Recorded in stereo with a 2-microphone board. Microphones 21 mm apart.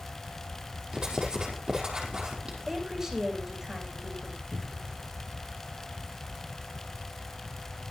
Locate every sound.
0.9 s writing: 40° right (ahead or behind), 5 m
2.7 s a woman speaking: 25° right (ahead or behind), 8.5 m
4.5 s a cupboard door: 70° right (ahead or behind), 3.5 m